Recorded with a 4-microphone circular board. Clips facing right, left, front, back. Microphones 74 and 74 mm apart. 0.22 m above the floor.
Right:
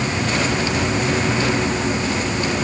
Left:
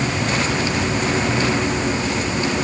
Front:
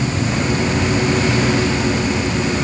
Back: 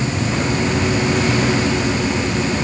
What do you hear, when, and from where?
Only background noise.